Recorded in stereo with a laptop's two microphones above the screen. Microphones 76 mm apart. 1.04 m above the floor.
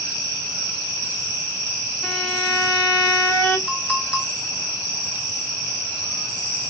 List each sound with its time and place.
2.0 s a violin: centre (ahead or behind), 1.1 m
3.7 s a clink: 20° left (ahead or behind), 1.2 m